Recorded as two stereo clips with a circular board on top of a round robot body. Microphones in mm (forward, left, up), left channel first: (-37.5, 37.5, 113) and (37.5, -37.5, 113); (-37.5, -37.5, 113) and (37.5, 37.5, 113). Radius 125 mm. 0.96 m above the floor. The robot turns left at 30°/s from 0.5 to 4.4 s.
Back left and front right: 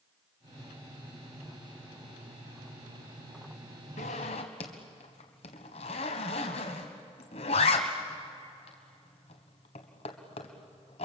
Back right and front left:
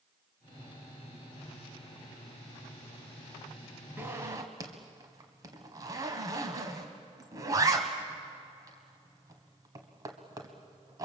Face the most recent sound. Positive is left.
turn(degrees=105)